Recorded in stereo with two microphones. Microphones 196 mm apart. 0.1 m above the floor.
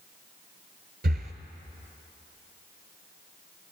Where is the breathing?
55° right (ahead or behind), 0.5 m.